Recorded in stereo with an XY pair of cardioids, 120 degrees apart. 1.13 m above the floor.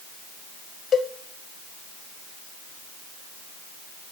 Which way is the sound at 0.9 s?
45° left.